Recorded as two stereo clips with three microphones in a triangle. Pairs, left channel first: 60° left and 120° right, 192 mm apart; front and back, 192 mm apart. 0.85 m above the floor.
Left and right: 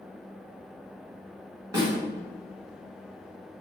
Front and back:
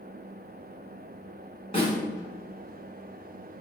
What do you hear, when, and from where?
1.7 s a snare drum: 55° right, 1.4 m